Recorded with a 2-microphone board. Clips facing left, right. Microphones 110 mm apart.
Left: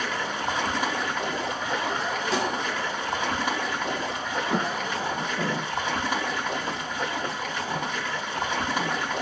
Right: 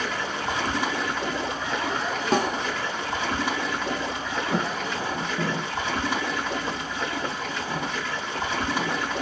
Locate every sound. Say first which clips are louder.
0.0 s running water: even; 15° left (ahead or behind), 3 m
2.3 s a snare drum: right 5 dB; 55° right (ahead or behind), 1.0 m
4.5 s footsteps: even; 30° left (ahead or behind), 2 m; by 9.0 s 35° right (ahead or behind), 1.8 m